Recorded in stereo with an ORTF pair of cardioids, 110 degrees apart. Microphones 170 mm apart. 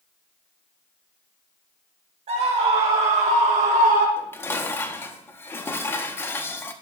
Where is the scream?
40° right, 4.5 m; by 4.1 s 55° right, 5 m.